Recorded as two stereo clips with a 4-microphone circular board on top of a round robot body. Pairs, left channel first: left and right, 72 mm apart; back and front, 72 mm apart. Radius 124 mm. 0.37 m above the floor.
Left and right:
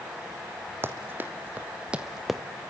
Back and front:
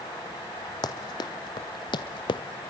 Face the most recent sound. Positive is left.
turn(degrees=175)